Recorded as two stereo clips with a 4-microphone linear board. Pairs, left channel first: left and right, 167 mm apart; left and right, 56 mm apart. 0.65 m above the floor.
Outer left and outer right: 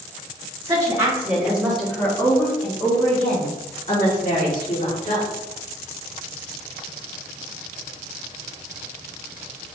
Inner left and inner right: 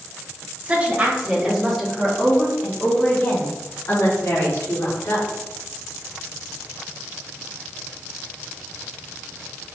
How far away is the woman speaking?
About 1.9 m.